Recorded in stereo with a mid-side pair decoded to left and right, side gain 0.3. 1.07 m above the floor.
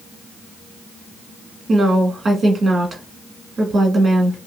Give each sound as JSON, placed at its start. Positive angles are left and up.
{"t": 1.7, "sound": "a woman speaking", "azimuth_deg": -60, "distance_m": 1.8}